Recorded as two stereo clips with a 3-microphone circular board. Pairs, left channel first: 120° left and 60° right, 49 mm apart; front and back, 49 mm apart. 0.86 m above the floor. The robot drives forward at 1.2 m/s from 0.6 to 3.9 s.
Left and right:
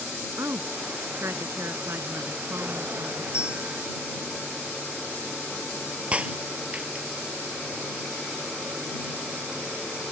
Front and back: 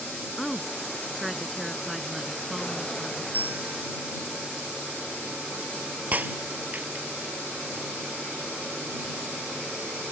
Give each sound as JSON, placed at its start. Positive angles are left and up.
{"t": 0.4, "sound": "a woman speaking", "azimuth_deg": -85}
{"t": 3.3, "sound": "a bell", "azimuth_deg": -130}
{"t": 6.1, "sound": "breaking glass", "azimuth_deg": -125}